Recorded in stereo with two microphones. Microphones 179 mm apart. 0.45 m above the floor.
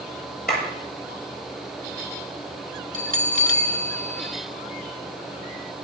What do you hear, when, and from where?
0.5 s a clap: 60° left (ahead or behind), 8.5 m
2.9 s a bell: 45° right (ahead or behind), 1.3 m